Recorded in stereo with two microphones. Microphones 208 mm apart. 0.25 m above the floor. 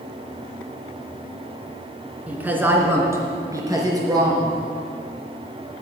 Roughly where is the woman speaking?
Centre.